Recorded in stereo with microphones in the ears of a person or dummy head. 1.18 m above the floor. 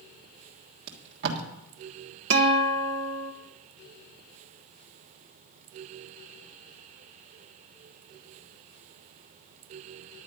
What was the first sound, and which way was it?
Tape being pulled, 60° right (ahead or behind).